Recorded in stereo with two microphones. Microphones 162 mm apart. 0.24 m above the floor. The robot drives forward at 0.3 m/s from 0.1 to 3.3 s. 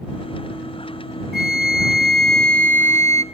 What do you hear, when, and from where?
1.3 s a flute: 80° right, 0.5 m; by 3.2 s 45° right (ahead or behind), 0.7 m